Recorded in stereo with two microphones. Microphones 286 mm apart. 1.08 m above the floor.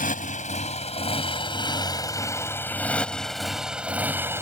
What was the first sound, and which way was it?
A motorcycle, 30° left (ahead or behind).